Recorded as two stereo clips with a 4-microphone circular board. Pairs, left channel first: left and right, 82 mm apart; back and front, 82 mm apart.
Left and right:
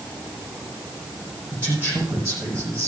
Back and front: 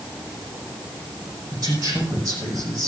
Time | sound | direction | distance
1.5 | a man speaking | 25° right | 8 m